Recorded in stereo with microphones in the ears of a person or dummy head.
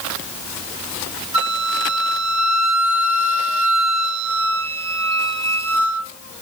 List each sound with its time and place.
1.3 s a flute: 40° right (ahead or behind), 1.4 m